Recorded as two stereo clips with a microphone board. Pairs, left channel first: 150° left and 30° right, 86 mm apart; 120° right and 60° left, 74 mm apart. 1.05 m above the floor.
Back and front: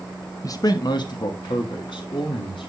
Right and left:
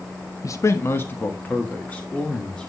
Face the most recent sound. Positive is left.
turn(degrees=160)